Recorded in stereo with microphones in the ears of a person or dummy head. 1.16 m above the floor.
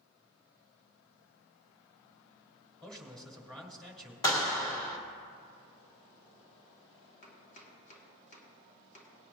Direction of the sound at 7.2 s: 40° left (ahead or behind).